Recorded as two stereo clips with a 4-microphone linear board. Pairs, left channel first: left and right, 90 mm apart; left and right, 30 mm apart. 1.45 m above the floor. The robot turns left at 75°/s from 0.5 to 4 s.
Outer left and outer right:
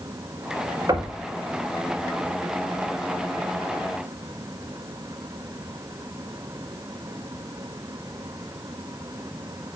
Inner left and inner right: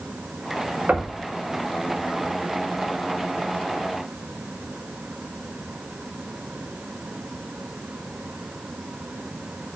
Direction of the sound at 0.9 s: 40° right (ahead or behind).